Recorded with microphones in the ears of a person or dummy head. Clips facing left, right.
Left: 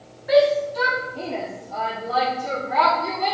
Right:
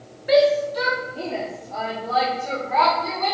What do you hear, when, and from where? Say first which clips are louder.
0.3 s a shout: even; 30° right (ahead or behind), 0.8 m; by 3.3 s 15° left (ahead or behind), 2 m